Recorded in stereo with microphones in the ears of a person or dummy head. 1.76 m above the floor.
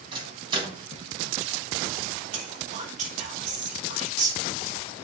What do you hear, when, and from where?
0.1 s a microwave: 30° right (ahead or behind), 1.5 m
2.3 s whispering: 45° right (ahead or behind), 2 m